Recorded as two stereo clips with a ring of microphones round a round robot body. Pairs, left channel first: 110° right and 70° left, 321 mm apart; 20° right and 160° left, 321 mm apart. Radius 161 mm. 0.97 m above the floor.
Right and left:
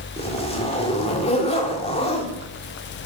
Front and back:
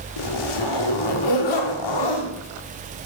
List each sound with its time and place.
0.2 s a zipper: 40° right, 1.7 m